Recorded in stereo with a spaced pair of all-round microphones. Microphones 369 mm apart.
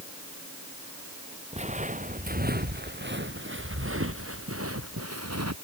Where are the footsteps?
20° right (ahead or behind); by 5.5 s 50° right (ahead or behind).